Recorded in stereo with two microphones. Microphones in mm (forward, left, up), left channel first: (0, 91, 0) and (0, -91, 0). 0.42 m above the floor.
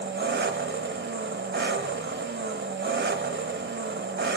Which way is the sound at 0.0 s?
75° right (ahead or behind).